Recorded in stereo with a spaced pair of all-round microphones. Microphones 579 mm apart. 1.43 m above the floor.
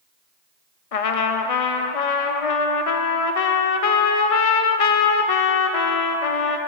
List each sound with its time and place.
0.9 s a trumpet: 75° left (ahead or behind), 0.6 m